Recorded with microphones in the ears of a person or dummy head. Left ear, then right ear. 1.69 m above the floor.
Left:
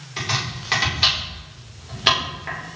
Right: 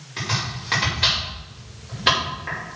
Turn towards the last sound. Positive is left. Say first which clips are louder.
# left 1 dB
turn(degrees=15)  # may be behind; listen again after turning